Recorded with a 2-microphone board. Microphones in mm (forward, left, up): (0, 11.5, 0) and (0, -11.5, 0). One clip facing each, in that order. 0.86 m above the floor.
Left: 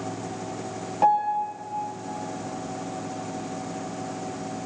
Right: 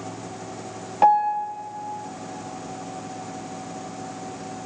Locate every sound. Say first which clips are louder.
1.0 s a piano: right 3 dB; 25° right (ahead or behind), 1.3 m